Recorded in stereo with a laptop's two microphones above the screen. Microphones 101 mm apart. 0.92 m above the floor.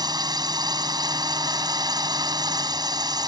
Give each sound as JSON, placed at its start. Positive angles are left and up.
{"t": 0.0, "sound": "a drone", "side_deg": -40}